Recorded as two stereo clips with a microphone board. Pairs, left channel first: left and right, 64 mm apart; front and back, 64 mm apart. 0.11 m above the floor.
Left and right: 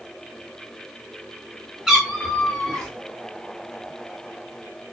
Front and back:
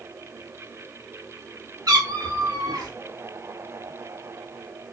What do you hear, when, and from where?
1.9 s a cat meowing: 170° right, 2.0 m; by 2.9 s 165° left, 2 m